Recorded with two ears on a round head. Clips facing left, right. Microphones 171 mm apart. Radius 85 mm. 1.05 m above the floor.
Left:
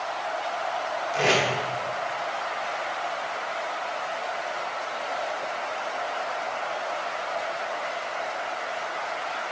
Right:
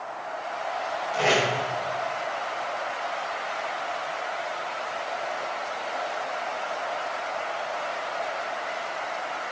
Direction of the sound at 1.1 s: 30° left (ahead or behind).